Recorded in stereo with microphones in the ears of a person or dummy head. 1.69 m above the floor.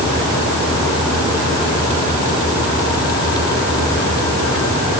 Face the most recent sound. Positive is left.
No sound to turn to.